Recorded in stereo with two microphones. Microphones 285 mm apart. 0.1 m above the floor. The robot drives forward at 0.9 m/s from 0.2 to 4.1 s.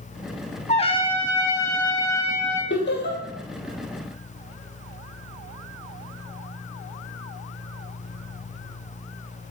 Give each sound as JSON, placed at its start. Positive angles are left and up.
{"t": 0.7, "sound": "a trumpet", "side_deg": 25, "distance_m": 0.9}
{"t": 2.7, "sound": "laughter", "side_deg": 40, "distance_m": 3.0}